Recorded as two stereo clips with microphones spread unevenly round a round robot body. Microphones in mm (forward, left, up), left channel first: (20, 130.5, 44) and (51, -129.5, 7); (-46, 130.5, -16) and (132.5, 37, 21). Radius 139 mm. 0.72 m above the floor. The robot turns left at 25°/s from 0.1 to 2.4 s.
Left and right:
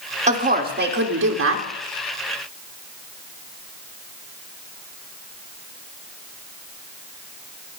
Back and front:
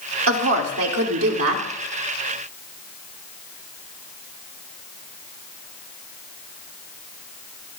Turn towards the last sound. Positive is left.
turn(degrees=-80)